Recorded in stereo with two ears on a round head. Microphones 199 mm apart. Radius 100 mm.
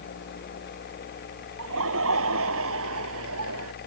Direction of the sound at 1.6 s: 70° right (ahead or behind).